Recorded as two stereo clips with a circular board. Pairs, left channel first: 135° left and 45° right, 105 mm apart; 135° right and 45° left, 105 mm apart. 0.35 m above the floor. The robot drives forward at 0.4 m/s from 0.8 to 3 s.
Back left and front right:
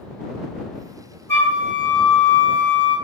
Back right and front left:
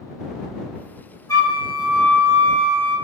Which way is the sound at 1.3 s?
175° right.